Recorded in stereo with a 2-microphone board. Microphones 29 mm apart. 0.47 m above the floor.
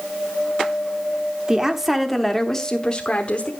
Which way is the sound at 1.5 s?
20° right (ahead or behind).